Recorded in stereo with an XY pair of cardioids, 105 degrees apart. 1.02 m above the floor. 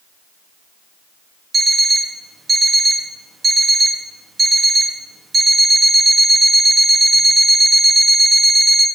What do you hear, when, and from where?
1.5 s an alarm clock: 30° right, 0.7 m